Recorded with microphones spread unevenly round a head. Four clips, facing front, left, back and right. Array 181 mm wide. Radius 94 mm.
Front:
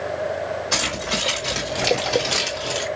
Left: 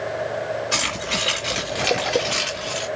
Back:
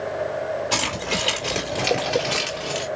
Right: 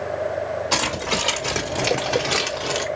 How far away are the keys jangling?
About 2.5 m.